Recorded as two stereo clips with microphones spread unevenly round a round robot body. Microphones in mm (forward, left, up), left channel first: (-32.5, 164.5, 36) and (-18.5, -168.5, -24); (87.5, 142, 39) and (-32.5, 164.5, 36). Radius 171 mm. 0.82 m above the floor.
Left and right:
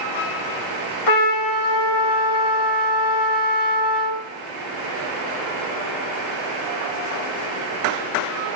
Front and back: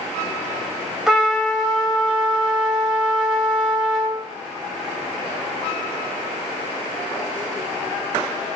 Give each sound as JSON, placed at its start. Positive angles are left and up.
{"t": 1.1, "sound": "a trumpet", "azimuth_deg": 85, "distance_m": 1.3}